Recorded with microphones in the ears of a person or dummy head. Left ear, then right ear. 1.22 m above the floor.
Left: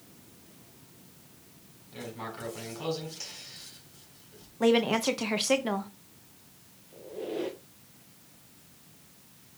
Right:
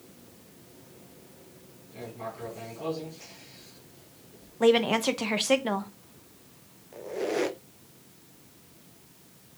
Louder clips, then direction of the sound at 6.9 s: Right 6 dB; 55° right (ahead or behind).